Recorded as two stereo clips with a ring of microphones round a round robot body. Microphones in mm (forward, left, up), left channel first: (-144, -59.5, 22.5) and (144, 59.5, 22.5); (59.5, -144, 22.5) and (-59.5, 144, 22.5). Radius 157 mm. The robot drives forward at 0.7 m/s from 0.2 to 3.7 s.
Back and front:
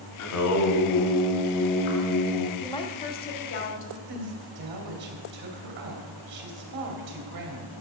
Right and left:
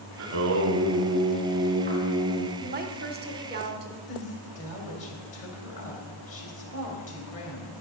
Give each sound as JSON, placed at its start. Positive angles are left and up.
{"t": 0.2, "sound": "singing", "azimuth_deg": 160, "distance_m": 1.3}
{"t": 2.6, "sound": "a woman speaking", "azimuth_deg": 130, "distance_m": 0.9}
{"t": 4.1, "sound": "a woman speaking", "azimuth_deg": -30, "distance_m": 2.5}